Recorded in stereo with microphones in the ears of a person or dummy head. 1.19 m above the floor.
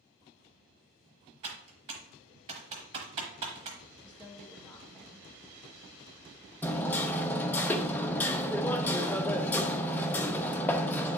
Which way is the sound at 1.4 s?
35° right (ahead or behind).